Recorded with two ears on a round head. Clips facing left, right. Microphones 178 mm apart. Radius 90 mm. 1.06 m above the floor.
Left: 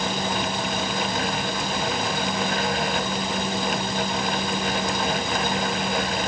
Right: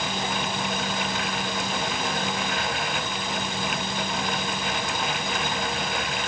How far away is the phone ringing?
No phone ringing in this recording.